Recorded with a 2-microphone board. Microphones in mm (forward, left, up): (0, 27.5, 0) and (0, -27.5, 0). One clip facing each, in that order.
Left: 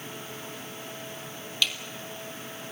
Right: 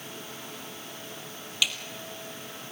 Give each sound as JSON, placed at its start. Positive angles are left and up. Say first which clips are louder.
{"t": 1.6, "sound": "a snare drum", "louder": "even", "side_deg": -10, "distance_m": 2.0}